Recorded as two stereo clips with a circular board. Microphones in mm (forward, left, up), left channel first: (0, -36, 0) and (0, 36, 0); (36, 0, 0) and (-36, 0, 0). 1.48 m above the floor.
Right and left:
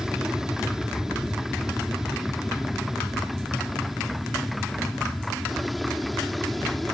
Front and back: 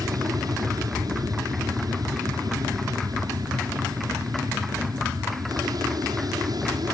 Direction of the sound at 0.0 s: 170° left.